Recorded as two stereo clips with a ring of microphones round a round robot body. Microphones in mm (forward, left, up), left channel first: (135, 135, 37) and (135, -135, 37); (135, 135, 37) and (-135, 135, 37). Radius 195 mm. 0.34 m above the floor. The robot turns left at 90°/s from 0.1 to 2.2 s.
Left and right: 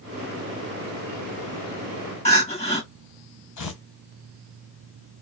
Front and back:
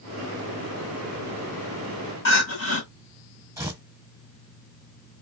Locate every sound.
2.2 s crying: 25° left, 1.7 m
3.6 s tearing paper: 100° left, 1.3 m